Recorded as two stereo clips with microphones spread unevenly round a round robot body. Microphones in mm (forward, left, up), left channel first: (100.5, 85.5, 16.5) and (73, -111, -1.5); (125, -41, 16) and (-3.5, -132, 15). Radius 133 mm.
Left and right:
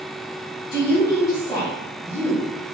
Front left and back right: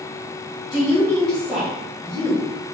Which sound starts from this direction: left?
A woman speaking, at 0.7 s.